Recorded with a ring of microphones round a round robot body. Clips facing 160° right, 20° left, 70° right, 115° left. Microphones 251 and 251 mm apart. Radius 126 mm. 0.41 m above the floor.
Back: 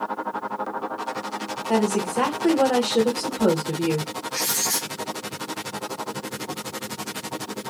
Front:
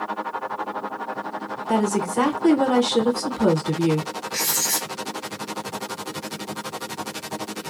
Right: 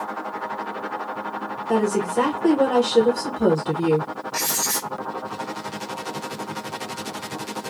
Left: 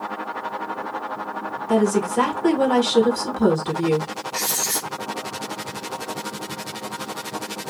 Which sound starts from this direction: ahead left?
A woman speaking, at 1.7 s.